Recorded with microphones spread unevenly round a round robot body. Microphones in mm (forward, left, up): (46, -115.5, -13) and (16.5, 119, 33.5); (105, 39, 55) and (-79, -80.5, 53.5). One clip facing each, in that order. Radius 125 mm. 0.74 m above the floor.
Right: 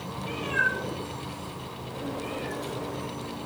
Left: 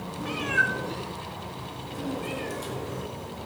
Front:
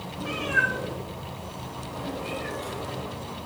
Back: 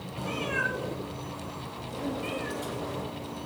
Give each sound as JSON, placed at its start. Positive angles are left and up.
{"t": 0.2, "sound": "a cat meowing", "azimuth_deg": 95, "distance_m": 3.5}